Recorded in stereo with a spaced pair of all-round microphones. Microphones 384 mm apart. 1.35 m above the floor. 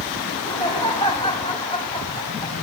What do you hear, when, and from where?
0.3 s laughter: 15° left (ahead or behind), 8.5 m